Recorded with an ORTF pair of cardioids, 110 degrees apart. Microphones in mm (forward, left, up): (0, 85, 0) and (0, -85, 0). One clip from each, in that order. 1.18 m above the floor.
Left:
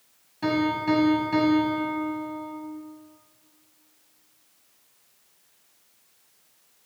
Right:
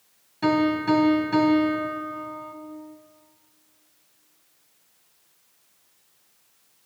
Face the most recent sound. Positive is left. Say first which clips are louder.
# right 3 dB
turn(degrees=-20)